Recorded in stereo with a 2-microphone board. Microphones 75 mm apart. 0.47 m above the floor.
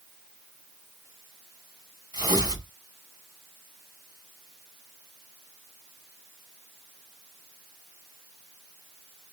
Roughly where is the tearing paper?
Right.